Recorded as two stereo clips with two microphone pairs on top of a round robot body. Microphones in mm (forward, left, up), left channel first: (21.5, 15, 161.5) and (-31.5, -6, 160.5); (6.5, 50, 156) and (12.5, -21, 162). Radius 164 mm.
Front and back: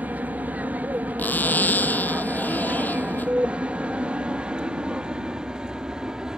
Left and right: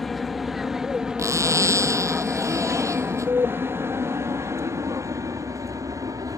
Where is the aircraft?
175° left; by 6.4 s 85° right.